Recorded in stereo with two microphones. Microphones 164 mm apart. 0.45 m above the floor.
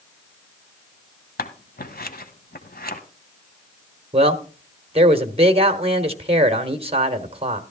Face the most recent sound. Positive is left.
turn(degrees=-35)  # may be behind; listen again after turning